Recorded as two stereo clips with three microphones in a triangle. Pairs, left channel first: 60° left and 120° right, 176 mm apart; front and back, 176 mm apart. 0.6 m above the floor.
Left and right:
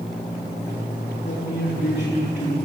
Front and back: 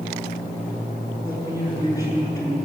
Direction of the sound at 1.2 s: 70° left.